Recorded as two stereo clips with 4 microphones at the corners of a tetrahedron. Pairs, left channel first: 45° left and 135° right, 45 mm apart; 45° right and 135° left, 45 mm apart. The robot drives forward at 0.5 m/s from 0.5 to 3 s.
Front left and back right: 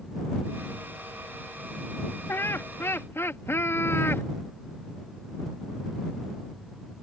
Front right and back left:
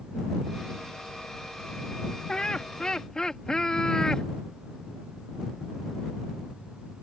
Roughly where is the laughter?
Ahead left.